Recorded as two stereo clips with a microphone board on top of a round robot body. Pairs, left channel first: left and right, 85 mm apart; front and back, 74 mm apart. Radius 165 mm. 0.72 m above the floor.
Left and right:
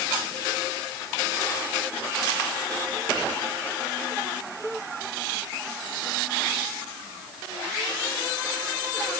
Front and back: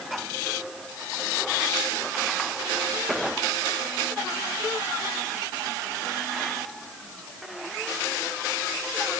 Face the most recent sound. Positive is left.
No sound to turn to.